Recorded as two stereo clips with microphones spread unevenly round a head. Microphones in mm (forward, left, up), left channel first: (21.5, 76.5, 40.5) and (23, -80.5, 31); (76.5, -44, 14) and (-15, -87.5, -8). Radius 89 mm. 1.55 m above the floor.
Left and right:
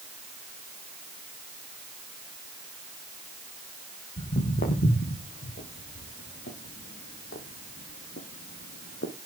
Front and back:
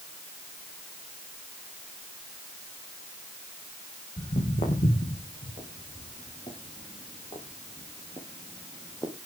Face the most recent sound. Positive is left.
turn(degrees=90)